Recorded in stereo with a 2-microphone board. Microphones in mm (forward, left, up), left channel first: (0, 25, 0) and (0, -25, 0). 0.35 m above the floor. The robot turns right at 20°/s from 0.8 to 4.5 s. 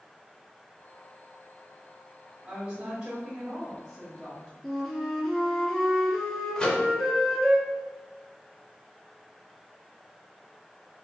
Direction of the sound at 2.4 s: 40° right.